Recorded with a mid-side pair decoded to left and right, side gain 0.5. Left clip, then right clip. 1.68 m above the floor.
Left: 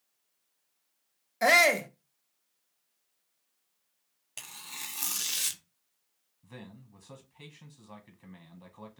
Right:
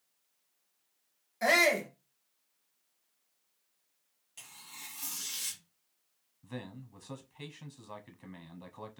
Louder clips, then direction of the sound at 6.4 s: Right 5 dB; 25° right.